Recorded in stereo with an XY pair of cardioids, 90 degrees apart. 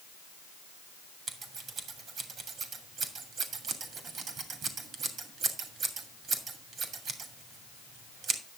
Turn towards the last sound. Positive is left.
turn(degrees=-70)